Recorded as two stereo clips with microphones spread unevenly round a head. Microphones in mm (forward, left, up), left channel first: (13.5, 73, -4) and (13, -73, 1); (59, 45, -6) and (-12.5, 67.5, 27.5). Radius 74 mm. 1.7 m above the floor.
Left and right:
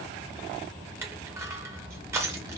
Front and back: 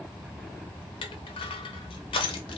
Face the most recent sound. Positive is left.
turn(degrees=-20)